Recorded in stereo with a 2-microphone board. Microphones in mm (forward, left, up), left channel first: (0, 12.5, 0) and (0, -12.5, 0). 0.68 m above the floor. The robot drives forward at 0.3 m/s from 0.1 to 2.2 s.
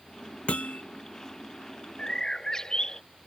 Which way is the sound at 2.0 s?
25° left (ahead or behind).